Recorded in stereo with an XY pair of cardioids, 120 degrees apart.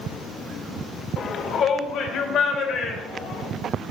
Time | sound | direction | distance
1.2 | a shout | 55° left | 1.3 m